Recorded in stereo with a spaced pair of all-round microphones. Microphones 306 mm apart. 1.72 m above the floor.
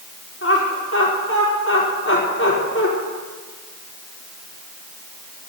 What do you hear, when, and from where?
0.4 s laughter: 45° left (ahead or behind), 5 m